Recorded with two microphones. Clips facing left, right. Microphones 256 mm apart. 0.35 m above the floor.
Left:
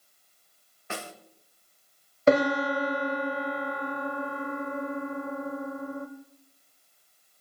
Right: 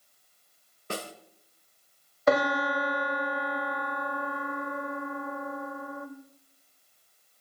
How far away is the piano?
About 1.5 m.